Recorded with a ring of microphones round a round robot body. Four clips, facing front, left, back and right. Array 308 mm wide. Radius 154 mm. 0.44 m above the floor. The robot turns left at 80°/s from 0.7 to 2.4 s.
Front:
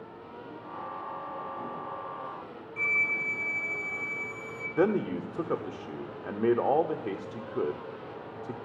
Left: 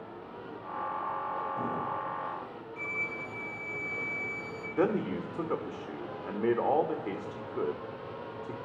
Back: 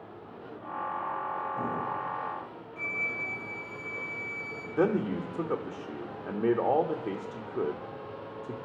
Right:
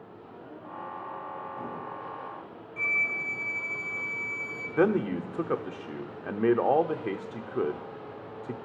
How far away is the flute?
About 0.8 m.